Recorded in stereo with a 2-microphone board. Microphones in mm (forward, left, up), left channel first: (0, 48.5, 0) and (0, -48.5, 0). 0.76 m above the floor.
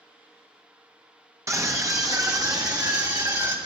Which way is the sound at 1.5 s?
30° right (ahead or behind).